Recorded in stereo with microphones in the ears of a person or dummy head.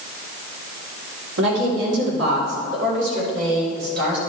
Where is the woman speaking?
75° right (ahead or behind), 4.5 m; by 4.2 s 70° right (ahead or behind), 6 m.